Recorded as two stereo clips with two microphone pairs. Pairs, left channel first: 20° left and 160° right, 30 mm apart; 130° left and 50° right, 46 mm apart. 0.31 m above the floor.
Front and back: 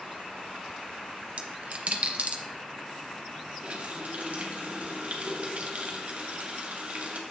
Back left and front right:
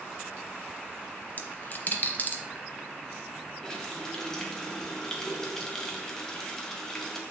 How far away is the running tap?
About 1.2 m.